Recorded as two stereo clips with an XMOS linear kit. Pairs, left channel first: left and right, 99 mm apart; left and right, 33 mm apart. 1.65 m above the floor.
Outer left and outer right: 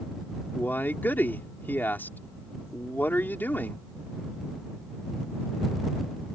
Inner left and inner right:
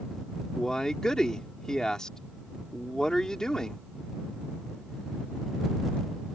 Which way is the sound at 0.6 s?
20° left (ahead or behind).